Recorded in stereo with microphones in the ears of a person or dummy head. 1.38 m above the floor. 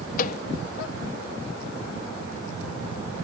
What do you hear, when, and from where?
0.2 s a microwave: 50° left (ahead or behind)